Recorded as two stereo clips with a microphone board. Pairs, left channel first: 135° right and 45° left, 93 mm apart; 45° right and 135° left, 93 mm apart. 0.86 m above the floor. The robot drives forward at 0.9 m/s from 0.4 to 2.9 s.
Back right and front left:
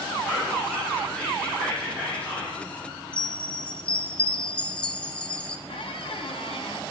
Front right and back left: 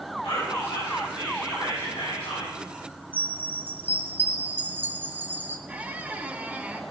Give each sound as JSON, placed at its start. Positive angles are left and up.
{"t": 0.2, "sound": "whispering", "azimuth_deg": -50, "distance_m": 8.0}
{"t": 3.1, "sound": "a chime", "azimuth_deg": 170, "distance_m": 1.0}
{"t": 5.7, "sound": "a squeak", "azimuth_deg": -150, "distance_m": 1.2}